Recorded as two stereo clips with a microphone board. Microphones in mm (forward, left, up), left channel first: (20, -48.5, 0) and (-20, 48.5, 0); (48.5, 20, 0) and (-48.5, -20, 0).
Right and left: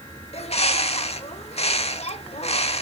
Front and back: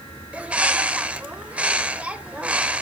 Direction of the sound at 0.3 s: 80° right.